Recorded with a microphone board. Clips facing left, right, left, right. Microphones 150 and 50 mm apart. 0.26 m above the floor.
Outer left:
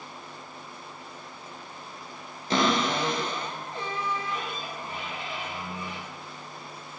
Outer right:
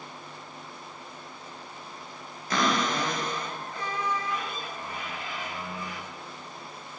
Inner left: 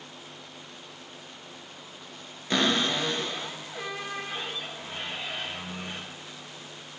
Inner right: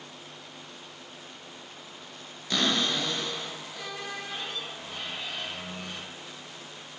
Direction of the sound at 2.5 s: 30° left (ahead or behind).